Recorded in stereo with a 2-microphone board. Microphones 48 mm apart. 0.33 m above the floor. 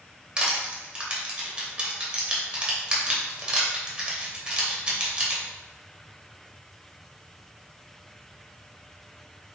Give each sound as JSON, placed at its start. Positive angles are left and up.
{"t": 0.4, "sound": "crushing", "side_deg": -20, "distance_m": 0.8}